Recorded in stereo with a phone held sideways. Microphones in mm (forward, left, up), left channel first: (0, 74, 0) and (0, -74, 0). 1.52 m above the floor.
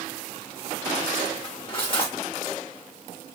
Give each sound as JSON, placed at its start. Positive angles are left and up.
{"t": 1.4, "sound": "cutlery clinking", "side_deg": 35, "distance_m": 1.2}